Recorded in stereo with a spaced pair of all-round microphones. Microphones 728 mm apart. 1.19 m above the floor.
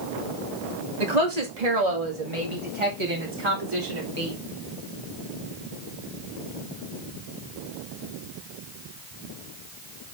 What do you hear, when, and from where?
1.0 s a woman speaking: 65° right (ahead or behind), 2.5 m; by 4.3 s 25° right (ahead or behind), 3 m